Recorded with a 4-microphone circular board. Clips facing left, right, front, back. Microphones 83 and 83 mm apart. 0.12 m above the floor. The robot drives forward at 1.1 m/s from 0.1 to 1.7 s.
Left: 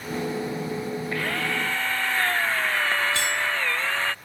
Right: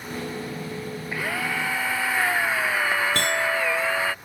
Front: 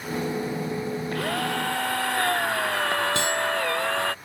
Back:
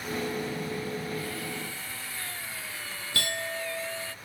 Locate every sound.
1.1 s a drill: 10° right
3.1 s a clink: 65° right